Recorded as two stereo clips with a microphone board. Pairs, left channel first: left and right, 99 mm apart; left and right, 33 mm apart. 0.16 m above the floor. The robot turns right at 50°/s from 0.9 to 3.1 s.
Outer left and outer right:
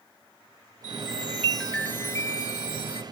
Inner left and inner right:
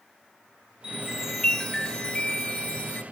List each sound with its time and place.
0.8 s a chime: 30° right, 2.5 m; by 3.0 s 75° left, 2.5 m